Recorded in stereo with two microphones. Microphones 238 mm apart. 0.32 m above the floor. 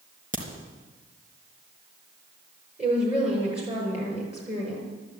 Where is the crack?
35° right (ahead or behind), 3.5 m.